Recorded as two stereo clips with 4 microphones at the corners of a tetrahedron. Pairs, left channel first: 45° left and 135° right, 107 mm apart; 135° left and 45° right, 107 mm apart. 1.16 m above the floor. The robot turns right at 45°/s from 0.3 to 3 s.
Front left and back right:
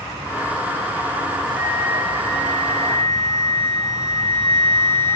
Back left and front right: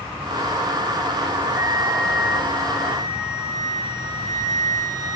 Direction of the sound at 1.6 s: 35° left.